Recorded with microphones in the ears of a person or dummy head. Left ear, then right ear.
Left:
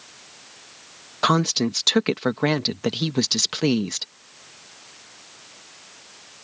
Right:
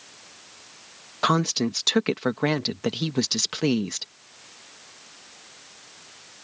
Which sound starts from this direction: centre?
A woman speaking, at 1.2 s.